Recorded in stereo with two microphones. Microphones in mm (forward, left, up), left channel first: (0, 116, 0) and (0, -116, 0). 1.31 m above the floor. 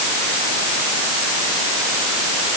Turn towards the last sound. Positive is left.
No sound to turn to.